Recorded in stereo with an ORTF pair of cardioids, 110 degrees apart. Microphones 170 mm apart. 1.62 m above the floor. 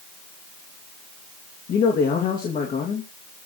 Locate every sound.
1.7 s a man speaking: 50° left, 2.5 m